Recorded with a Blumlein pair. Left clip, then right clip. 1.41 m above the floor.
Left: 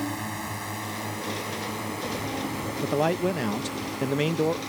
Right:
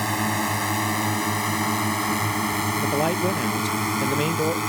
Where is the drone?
25° right; by 4.7 s 35° right.